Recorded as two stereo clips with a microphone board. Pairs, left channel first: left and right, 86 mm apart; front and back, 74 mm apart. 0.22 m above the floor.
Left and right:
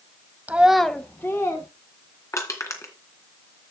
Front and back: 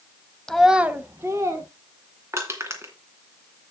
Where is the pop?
I don't hear a pop.